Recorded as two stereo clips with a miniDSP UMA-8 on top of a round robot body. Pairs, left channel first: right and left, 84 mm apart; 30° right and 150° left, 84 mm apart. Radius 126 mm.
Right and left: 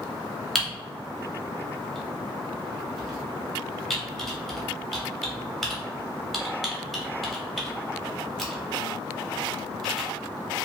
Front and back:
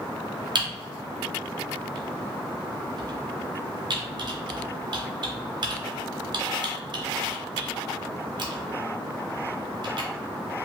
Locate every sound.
0.6 s typing on a keyboard: straight behind, 0.8 m